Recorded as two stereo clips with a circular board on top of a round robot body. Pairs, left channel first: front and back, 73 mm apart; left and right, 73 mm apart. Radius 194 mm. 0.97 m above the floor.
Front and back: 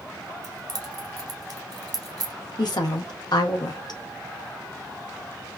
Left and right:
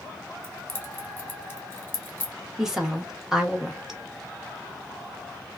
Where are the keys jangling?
150° left, 1.0 m.